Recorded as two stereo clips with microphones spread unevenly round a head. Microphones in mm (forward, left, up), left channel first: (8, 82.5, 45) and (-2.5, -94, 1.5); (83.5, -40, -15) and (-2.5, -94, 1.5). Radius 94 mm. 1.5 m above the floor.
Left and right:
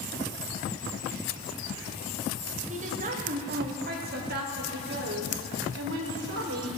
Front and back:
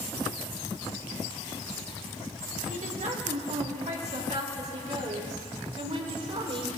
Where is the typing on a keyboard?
I don't hear typing on a keyboard.